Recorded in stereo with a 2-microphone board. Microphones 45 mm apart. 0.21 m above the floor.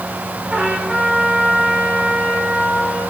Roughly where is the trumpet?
Centre.